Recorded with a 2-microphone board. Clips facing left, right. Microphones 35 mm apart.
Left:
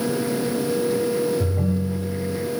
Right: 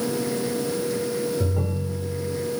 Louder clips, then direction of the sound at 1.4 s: Left 3 dB; 50° right (ahead or behind).